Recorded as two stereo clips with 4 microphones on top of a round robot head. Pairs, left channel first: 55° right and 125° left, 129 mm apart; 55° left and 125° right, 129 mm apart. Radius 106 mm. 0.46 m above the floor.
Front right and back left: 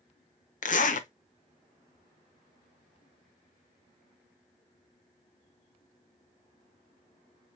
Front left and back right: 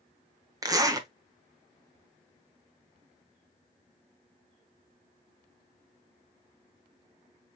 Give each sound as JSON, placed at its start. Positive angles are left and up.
{"t": 0.6, "sound": "a zipper", "azimuth_deg": -60, "distance_m": 1.0}